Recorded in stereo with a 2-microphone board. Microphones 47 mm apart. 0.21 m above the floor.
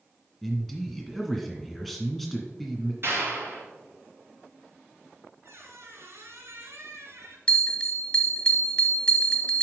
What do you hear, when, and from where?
0.4 s a man speaking: centre (ahead or behind), 2 m
3.0 s a clap: 55° right (ahead or behind), 3.5 m
5.4 s a squeak: 60° right (ahead or behind), 1.7 m
7.5 s a bell: 20° left (ahead or behind), 1.1 m